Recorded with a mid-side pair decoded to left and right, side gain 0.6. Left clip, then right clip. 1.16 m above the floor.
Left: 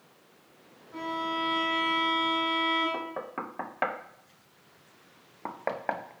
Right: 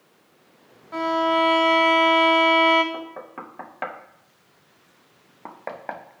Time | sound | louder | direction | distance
0.9 | a violin | right 11 dB | 70° right | 2 m
2.9 | knocking | even | 15° left | 0.8 m